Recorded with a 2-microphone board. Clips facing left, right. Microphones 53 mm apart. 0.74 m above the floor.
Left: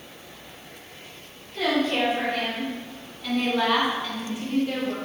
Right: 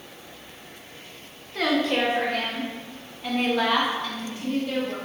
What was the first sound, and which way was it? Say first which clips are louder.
A woman speaking: even; 75° right (ahead or behind).